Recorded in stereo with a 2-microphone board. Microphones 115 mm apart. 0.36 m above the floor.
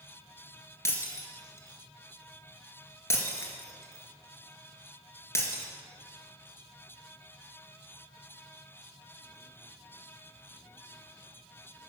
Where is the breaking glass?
25° left (ahead or behind), 2 m.